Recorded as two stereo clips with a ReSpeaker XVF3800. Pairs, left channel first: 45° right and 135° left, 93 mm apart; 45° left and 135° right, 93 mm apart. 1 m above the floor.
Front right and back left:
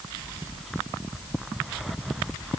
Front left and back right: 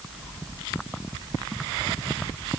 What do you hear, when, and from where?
Only background noise.